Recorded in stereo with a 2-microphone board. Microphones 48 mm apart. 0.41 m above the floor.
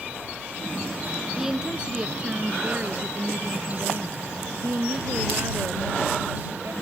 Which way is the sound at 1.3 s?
10° right (ahead or behind).